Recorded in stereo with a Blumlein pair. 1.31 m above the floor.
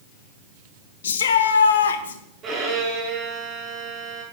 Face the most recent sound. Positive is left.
turn(degrees=-25)